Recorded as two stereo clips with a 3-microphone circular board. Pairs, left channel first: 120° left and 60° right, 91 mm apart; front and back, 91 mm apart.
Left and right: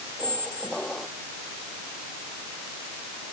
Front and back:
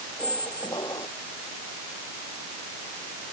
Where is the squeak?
40° left.